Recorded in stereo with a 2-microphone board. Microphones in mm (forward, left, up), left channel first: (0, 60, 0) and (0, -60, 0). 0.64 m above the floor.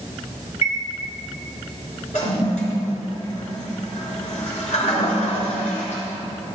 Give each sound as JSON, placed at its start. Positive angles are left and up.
{"t": 0.6, "sound": "a chime", "side_deg": 60, "distance_m": 2.5}
{"t": 2.1, "sound": "a toilet flushing", "side_deg": 75, "distance_m": 4.0}